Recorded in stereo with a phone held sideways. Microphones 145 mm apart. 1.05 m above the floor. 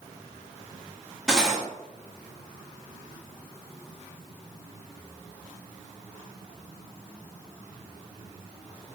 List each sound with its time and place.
1.3 s cutlery clinking: 5° right (ahead or behind), 0.5 m